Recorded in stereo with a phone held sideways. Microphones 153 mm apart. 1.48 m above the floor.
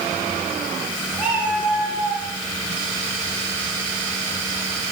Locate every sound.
1.2 s a cat meowing: 10° right (ahead or behind), 6 m